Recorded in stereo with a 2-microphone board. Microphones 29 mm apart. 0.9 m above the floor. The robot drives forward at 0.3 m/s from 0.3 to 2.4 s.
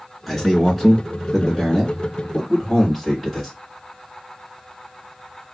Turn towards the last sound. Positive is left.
turn(degrees=10)  # may be behind; listen again after turning